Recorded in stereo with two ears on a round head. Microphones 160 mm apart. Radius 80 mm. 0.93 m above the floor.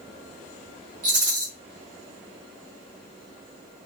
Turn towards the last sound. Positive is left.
turn(degrees=-45)  # may be behind; listen again after turning